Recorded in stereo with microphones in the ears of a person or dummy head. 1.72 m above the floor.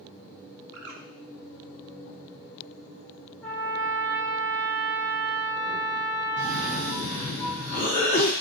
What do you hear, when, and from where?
0.7 s a bird: 75° right (ahead or behind), 0.5 m
3.4 s a trumpet: 5° left (ahead or behind), 0.6 m
6.4 s a cough: 40° left (ahead or behind), 0.6 m